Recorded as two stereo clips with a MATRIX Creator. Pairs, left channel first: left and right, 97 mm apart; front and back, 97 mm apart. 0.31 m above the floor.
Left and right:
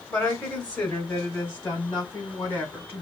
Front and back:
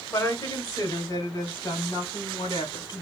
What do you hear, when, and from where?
0.1 s a woman speaking: 20° left, 1.8 m; by 3.0 s 25° left, 3 m